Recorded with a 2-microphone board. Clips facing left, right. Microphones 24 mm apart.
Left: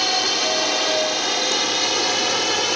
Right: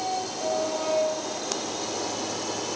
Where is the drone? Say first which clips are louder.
Left 9 dB; 65° left (ahead or behind); by 2.8 s 55° left (ahead or behind).